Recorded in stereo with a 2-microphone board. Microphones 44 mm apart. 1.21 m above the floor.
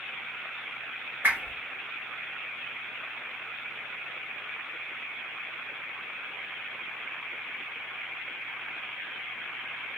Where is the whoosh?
45° right (ahead or behind), 1.8 m.